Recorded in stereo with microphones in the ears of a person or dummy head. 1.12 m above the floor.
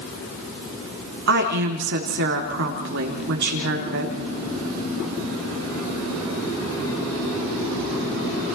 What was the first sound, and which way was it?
A woman speaking, 60° right (ahead or behind).